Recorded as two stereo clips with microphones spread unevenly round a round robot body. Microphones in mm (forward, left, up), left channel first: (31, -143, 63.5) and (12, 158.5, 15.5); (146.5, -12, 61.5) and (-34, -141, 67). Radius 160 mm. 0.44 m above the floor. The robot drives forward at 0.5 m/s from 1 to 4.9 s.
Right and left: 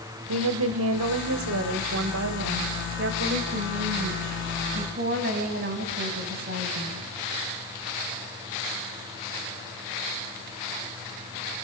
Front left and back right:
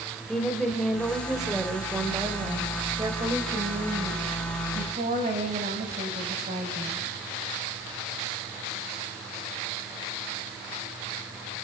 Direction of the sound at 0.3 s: 120° left.